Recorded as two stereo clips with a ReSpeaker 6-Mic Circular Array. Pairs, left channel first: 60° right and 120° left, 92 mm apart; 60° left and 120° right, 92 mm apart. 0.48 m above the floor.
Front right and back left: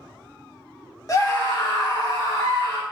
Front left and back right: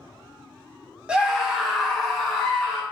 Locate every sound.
1.1 s a scream: 50° right, 0.8 m; by 2.8 s 25° right, 2 m